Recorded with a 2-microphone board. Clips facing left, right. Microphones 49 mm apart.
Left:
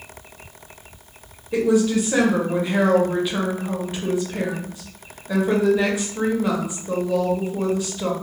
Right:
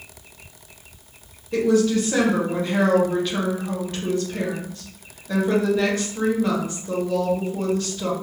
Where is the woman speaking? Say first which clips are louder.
Even; 10° left (ahead or behind), 0.7 m.